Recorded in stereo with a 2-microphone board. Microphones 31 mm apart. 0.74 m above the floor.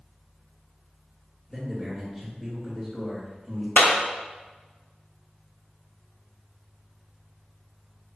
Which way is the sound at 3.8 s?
70° left (ahead or behind).